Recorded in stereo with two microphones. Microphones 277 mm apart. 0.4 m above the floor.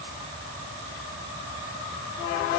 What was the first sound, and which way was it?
Only background noise.